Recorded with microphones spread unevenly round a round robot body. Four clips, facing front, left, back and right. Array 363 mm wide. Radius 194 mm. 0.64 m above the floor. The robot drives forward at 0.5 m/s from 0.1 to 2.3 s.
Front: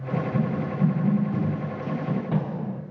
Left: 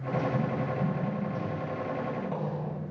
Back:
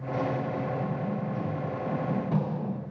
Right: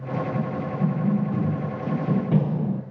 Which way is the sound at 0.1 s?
10° right.